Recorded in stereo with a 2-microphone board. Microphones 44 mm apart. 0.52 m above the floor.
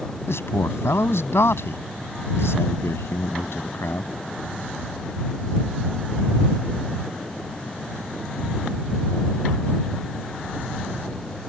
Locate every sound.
0.3 s a man speaking: 75° left (ahead or behind)